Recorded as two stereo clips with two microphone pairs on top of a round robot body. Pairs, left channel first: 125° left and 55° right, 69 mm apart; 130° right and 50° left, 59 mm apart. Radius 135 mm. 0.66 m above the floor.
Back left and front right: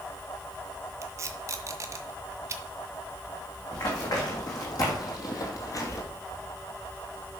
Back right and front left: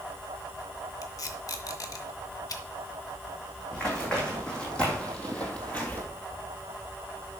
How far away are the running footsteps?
About 3.5 m.